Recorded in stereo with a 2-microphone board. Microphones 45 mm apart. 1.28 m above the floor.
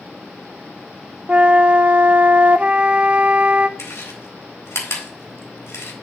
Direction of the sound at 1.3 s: 30° right (ahead or behind).